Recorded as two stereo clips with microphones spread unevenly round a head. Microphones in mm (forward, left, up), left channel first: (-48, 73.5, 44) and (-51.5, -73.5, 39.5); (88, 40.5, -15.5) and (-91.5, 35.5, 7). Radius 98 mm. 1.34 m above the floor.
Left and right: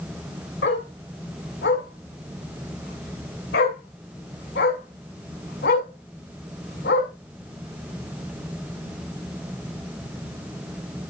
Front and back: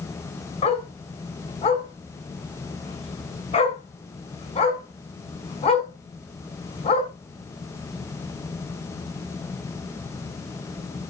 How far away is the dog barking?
About 6 m.